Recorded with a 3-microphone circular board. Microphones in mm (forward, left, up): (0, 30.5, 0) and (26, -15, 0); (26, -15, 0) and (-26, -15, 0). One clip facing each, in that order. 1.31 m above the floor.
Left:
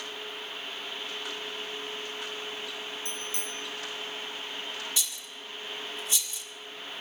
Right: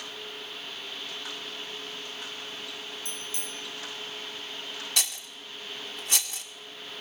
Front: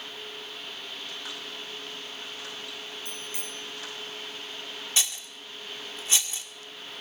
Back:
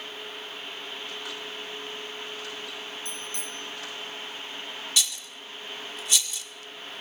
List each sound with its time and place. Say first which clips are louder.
3.0 s a bicycle bell: left 2 dB, back 2 dB; 80° left, 7.5 m
5.0 s a rattle: right 3 dB, back 1 dB; 55° right, 1.6 m